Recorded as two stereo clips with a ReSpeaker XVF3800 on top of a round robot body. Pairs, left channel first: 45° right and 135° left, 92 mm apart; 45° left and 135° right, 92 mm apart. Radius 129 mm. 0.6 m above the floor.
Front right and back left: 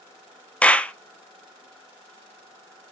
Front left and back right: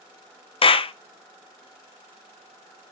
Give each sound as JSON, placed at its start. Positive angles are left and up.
{"t": 0.6, "sound": "a clap", "azimuth_deg": 30, "distance_m": 0.6}